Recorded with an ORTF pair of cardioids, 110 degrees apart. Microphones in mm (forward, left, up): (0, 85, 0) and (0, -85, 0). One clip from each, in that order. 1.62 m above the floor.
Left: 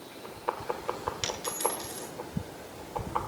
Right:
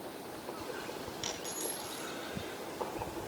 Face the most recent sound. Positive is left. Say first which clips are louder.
# left 7 dB
turn(degrees=60)